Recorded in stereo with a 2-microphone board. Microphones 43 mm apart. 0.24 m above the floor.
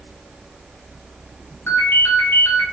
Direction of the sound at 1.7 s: 70° left (ahead or behind).